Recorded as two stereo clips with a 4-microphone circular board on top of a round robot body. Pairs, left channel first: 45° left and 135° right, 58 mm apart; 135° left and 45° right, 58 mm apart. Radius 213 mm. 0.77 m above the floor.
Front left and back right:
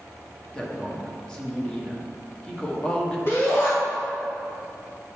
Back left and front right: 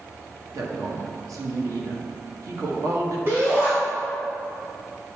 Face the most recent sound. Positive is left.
turn(degrees=0)